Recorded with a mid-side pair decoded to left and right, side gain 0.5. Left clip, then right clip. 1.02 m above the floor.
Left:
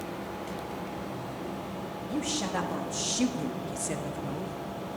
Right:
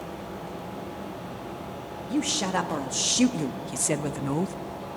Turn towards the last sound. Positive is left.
turn(degrees=-80)